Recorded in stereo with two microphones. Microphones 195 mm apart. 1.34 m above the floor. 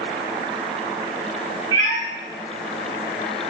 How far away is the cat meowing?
About 1.8 m.